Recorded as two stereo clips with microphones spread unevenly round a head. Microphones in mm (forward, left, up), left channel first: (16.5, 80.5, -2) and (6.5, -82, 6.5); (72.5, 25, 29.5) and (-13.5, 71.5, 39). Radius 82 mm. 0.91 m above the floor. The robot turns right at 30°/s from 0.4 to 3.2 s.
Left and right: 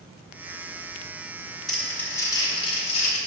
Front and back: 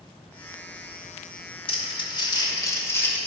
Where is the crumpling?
5° right, 2.5 m; by 3.2 s 40° left, 2.5 m.